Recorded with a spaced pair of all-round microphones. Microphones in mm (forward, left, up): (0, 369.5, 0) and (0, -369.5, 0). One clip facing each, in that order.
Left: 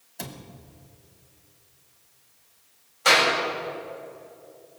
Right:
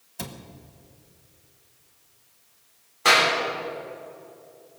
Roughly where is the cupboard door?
Right.